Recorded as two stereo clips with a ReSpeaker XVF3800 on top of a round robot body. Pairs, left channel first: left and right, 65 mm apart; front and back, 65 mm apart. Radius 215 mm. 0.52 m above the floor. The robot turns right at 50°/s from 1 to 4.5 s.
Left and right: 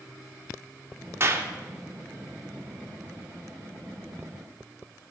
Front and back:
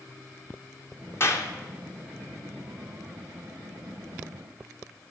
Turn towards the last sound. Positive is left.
turn(degrees=120)